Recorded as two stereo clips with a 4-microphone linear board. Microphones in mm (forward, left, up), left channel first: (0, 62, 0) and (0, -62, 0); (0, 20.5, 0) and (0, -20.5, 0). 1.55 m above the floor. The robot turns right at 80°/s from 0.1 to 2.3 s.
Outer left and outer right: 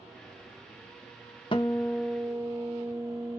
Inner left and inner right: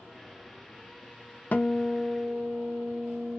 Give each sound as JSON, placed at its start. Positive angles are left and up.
{"t": 1.5, "sound": "a guitar", "azimuth_deg": 135, "distance_m": 0.6}